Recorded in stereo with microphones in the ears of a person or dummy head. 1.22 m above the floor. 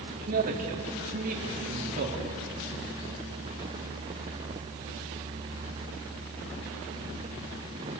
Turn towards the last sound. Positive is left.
turn(degrees=-40)  # may be behind; listen again after turning